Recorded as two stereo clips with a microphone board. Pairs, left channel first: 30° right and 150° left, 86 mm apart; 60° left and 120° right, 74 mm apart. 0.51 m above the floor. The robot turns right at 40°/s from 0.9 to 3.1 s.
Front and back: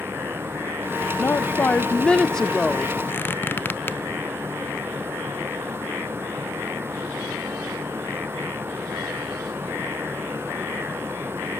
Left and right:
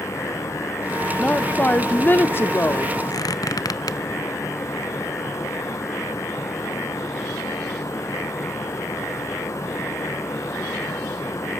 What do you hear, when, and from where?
1.2 s a woman speaking: straight ahead, 1.0 m; by 3.0 s 70° left, 1.0 m
3.1 s a squeak: 35° left, 0.6 m